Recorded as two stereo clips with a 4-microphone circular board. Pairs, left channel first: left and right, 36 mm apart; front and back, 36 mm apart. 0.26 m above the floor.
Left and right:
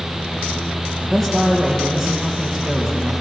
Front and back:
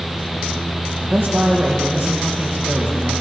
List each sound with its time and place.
1.0 s a man speaking: straight behind, 5 m